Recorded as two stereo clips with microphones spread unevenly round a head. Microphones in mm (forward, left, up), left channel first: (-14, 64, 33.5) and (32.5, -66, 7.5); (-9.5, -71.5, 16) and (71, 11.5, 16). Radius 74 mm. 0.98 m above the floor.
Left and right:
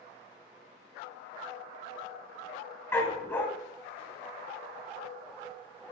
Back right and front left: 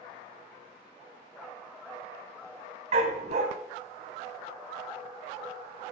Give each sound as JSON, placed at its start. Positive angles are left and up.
{"t": 2.9, "sound": "a dog barking", "azimuth_deg": 40, "distance_m": 1.5}